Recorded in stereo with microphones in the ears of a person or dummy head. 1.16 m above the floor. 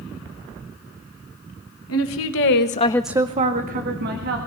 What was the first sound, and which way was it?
A woman speaking, 80° left.